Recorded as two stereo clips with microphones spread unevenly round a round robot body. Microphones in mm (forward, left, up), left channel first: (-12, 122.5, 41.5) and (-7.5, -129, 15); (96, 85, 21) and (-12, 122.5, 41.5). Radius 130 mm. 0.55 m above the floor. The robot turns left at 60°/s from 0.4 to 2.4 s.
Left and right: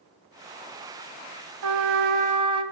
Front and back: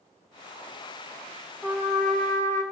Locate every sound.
1.6 s a trumpet: 115° right, 0.8 m; by 2.6 s 160° right, 0.8 m